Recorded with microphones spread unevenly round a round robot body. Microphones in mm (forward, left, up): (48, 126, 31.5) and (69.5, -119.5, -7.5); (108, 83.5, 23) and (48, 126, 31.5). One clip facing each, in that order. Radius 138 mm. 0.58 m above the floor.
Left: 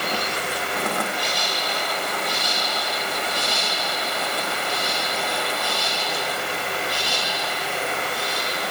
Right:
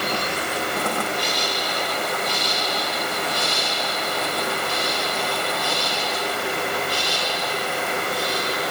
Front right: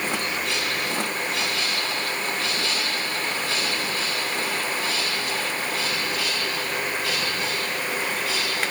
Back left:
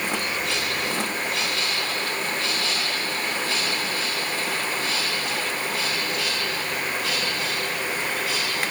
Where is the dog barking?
I don't hear a dog barking.